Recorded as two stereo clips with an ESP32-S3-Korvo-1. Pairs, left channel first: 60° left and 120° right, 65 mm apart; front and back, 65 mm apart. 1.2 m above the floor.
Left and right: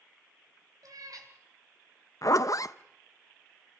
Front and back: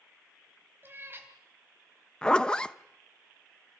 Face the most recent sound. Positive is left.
turn(degrees=75)